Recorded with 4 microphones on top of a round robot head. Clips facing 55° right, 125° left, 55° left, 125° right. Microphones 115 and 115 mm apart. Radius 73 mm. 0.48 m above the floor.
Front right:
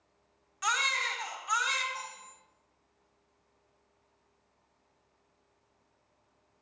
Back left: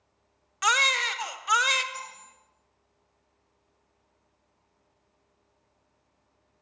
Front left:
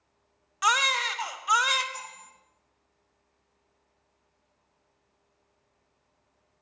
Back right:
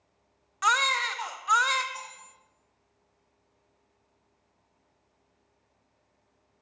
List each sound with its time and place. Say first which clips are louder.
0.6 s a baby crying: back left 6 dB, even; 135° left, 0.7 m
1.9 s cutlery clinking: back left 1 dB, even; 120° left, 5 m